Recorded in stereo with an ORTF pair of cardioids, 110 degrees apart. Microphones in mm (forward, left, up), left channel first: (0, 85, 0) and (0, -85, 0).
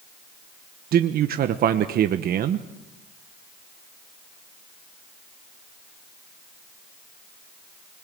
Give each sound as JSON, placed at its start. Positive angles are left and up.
{"t": 0.9, "sound": "a man speaking", "azimuth_deg": -55, "distance_m": 1.2}